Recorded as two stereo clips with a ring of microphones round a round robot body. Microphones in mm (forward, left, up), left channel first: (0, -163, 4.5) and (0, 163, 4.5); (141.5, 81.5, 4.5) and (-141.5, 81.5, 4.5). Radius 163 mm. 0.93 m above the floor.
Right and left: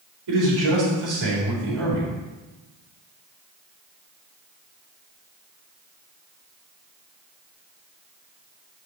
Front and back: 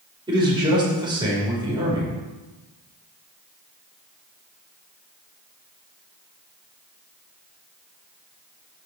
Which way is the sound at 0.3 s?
105° left.